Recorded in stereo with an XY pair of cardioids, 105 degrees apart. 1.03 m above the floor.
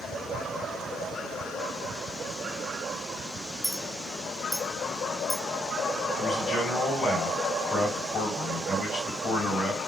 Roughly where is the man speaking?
Ahead left.